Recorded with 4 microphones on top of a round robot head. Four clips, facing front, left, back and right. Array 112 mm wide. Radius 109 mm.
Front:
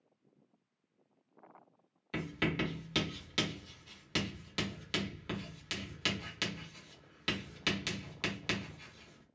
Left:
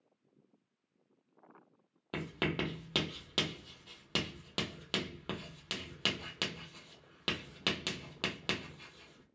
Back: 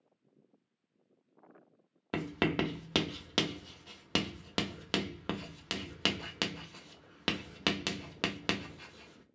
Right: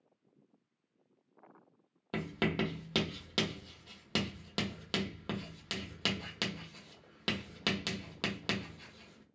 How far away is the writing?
About 0.9 m.